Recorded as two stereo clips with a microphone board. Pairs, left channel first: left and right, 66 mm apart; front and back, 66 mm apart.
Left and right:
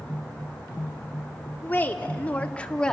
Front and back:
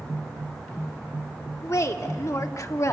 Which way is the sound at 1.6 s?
30° left.